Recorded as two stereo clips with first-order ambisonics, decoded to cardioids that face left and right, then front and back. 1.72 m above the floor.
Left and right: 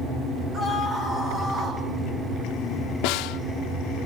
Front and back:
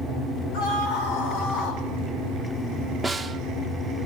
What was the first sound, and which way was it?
A scream, 25° right.